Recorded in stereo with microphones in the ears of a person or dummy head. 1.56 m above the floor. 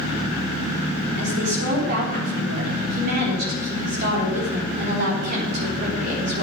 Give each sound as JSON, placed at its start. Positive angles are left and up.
{"t": 1.2, "sound": "a woman speaking", "side_deg": -55, "distance_m": 4.0}